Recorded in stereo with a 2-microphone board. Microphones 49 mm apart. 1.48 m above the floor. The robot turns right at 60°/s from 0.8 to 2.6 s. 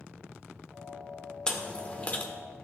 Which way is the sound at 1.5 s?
15° left (ahead or behind).